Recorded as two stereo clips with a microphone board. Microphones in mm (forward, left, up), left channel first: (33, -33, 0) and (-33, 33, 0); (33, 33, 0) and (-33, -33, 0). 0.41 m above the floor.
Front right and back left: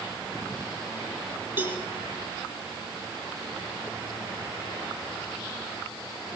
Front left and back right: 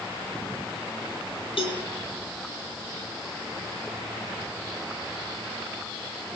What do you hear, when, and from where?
1.6 s a cowbell: 65° left, 3.5 m